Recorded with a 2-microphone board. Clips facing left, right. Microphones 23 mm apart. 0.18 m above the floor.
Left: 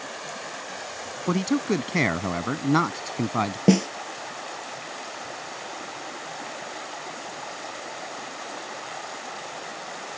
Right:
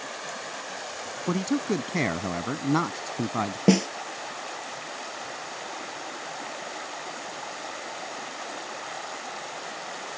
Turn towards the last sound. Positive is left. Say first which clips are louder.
# left 1 dB
turn(degrees=-5)  # may be behind; listen again after turning